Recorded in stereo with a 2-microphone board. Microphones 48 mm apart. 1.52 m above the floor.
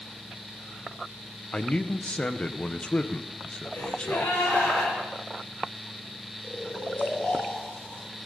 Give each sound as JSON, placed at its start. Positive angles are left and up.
{"t": 1.5, "sound": "a man speaking", "side_deg": 25, "distance_m": 0.9}
{"t": 3.7, "sound": "a gasp", "side_deg": 60, "distance_m": 9.0}
{"t": 6.4, "sound": "snoring", "side_deg": 35, "distance_m": 3.0}